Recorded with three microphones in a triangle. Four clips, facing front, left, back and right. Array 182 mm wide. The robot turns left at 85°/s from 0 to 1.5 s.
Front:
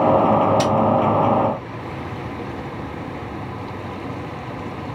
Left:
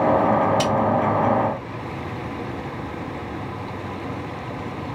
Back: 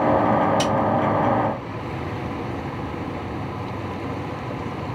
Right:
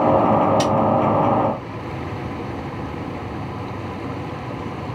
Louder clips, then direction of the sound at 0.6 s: Right 2 dB, front 3 dB; 60° right.